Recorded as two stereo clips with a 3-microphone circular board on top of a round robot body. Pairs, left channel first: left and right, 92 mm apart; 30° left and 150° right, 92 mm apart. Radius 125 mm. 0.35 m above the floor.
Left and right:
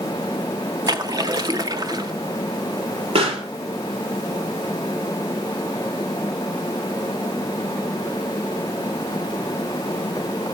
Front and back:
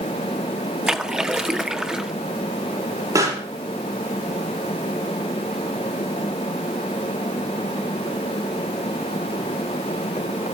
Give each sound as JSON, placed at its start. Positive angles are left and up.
{"t": 0.9, "sound": "a splash", "azimuth_deg": -70, "distance_m": 1.8}
{"t": 3.1, "sound": "a pop", "azimuth_deg": -95, "distance_m": 5.5}